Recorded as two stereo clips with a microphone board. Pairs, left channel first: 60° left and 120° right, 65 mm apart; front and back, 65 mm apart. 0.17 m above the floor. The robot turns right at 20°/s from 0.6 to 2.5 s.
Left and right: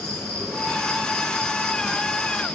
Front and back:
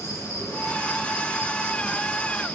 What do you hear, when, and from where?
0.0 s an insect: 20° right, 2.5 m; by 2.5 s 20° left, 2.5 m